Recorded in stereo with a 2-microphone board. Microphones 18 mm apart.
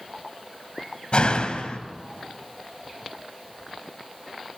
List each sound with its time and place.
1.1 s a door slam: 65° left (ahead or behind), 2.0 m